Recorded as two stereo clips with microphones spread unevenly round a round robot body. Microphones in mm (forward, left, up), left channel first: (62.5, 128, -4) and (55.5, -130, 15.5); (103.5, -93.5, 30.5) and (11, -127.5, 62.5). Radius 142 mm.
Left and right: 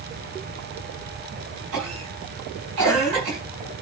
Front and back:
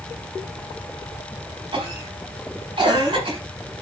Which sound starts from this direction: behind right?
A cough, at 1.7 s.